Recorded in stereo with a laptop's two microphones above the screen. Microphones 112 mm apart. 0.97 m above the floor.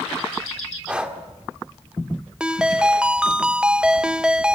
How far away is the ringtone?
About 0.6 m.